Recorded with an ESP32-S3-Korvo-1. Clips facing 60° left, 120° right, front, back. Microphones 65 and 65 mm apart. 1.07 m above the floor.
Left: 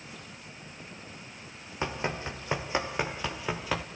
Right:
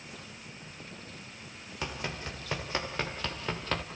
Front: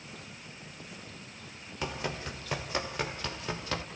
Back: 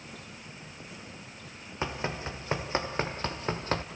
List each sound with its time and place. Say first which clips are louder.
1.8 s running footsteps: left 5 dB, back 2 dB; 120° left, 2.5 m; by 3.8 s 140° left, 1.7 m